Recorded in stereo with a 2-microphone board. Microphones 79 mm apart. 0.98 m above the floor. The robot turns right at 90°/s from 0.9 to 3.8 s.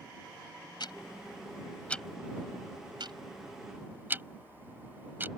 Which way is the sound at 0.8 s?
70° left (ahead or behind).